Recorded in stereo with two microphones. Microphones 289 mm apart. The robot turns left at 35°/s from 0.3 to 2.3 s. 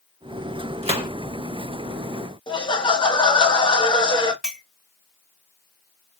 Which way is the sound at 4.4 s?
Centre (ahead or behind).